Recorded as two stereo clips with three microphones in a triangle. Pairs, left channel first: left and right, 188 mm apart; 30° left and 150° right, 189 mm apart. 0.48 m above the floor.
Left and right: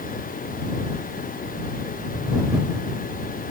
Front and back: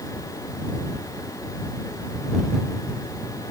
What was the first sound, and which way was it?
Only background noise.